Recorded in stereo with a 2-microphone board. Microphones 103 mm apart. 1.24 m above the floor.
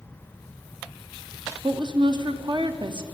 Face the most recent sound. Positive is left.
turn(degrees=-50)  # may be behind; listen again after turning